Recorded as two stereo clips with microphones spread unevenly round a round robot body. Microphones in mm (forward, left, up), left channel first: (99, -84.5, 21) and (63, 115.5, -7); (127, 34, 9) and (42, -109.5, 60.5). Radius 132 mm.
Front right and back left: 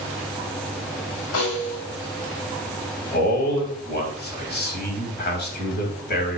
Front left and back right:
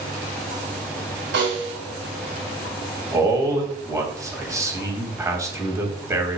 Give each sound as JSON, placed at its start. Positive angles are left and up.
{"t": 1.3, "sound": "a snare drum", "azimuth_deg": -105, "distance_m": 4.5}
{"t": 3.1, "sound": "a man speaking", "azimuth_deg": -40, "distance_m": 3.0}